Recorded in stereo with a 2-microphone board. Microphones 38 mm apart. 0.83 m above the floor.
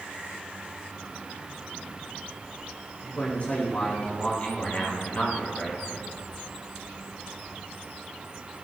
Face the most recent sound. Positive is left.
turn(degrees=35)  # may be behind; listen again after turning